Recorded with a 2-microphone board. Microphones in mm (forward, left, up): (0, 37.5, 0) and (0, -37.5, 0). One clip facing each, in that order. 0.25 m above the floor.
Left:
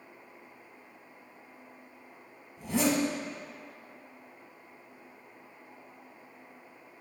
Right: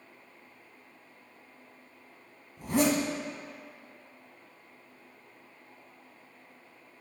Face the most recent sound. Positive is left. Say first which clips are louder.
# right 2 dB
turn(degrees=-55)  # may be behind; listen again after turning